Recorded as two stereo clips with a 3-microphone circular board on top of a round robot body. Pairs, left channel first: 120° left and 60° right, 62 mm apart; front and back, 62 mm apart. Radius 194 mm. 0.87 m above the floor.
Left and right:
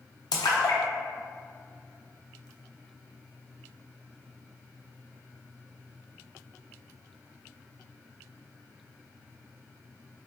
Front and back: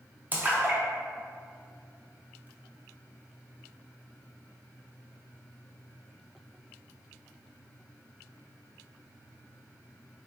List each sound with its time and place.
0.3 s a splash: 115° left, 0.5 m